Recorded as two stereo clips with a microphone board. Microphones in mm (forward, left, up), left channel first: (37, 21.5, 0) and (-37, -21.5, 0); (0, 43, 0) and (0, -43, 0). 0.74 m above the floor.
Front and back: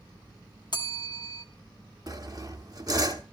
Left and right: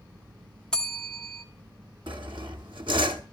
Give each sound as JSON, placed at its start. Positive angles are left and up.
{"t": 0.7, "sound": "a bell", "azimuth_deg": 10, "distance_m": 1.3}
{"t": 2.1, "sound": "sawing", "azimuth_deg": -105, "distance_m": 1.2}